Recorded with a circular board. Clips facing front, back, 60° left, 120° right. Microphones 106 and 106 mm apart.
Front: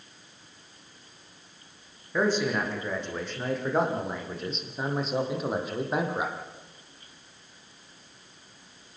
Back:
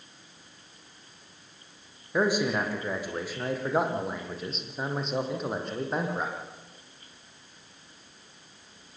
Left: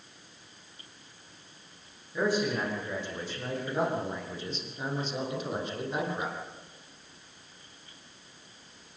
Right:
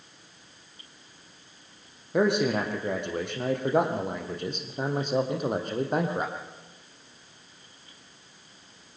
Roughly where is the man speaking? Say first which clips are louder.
Even, right 5 dB; right.